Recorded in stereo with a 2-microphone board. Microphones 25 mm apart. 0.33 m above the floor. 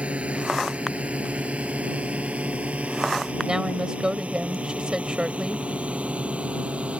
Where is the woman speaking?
40° right (ahead or behind).